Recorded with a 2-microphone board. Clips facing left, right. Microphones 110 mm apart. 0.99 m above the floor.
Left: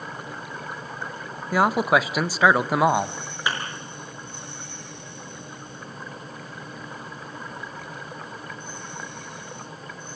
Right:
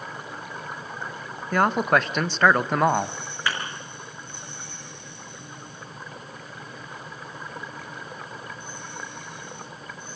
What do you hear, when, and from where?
1.5 s a man speaking: 5° left (ahead or behind), 0.8 m
3.5 s a thud: 20° left (ahead or behind), 5.5 m